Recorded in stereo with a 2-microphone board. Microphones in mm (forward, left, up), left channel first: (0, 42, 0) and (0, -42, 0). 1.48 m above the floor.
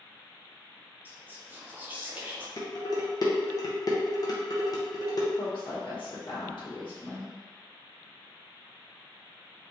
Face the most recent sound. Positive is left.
turn(degrees=85)